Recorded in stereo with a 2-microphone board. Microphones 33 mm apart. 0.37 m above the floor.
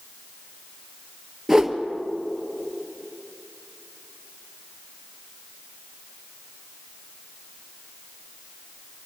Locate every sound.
1.5 s a whoosh: 10° right (ahead or behind), 1.2 m